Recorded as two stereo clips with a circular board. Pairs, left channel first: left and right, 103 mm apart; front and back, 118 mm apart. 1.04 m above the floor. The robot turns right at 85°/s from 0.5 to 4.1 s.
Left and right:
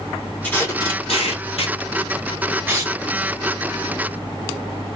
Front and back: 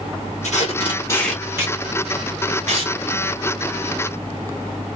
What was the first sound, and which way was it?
Tape being pulled, 15° left.